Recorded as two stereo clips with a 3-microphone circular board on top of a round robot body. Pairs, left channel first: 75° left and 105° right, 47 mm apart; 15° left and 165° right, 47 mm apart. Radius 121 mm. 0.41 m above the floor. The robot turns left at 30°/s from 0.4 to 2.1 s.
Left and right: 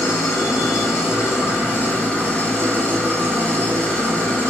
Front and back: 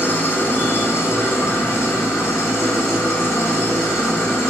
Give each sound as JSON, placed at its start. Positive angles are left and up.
{"t": 0.0, "sound": "an engine running", "azimuth_deg": 65, "distance_m": 2.5}